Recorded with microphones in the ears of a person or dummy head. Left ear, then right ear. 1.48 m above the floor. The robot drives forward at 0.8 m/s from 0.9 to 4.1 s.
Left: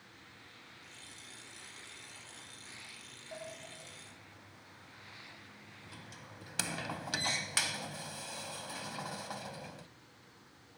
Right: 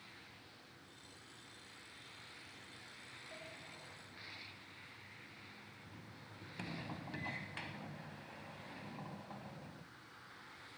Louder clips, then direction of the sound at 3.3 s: Left 9 dB; 55° left (ahead or behind).